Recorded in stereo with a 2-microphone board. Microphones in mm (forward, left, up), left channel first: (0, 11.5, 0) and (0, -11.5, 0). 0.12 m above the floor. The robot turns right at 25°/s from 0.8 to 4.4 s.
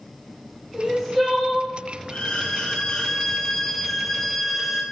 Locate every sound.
0.7 s crying: 10° right (ahead or behind), 2 m; by 1.7 s 10° left (ahead or behind), 2 m
2.1 s a violin: 125° left, 1.0 m; by 4.8 s straight behind, 1.0 m